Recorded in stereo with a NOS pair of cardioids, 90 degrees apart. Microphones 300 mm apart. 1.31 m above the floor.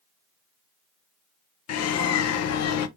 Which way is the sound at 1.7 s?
60° left.